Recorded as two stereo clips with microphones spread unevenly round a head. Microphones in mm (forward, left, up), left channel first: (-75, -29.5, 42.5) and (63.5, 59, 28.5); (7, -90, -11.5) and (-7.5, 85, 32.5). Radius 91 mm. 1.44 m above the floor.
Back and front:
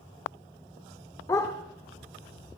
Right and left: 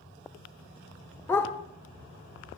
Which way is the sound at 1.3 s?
Straight behind.